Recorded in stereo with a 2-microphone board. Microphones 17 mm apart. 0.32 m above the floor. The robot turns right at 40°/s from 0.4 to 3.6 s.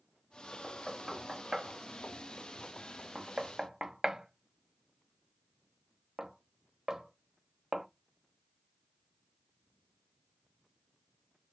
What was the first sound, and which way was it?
Knocking, centre (ahead or behind).